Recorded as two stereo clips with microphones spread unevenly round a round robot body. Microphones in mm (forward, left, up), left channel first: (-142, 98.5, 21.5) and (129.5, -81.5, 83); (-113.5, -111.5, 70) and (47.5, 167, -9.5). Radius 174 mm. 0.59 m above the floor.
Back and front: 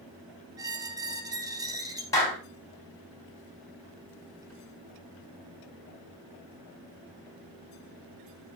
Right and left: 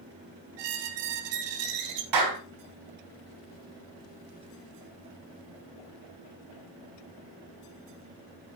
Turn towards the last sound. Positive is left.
turn(degrees=65)